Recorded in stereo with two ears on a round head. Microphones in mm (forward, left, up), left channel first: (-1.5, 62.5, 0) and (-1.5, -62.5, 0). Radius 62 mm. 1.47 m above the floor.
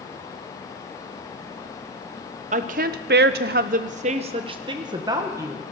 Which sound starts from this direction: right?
A woman speaking, at 2.5 s.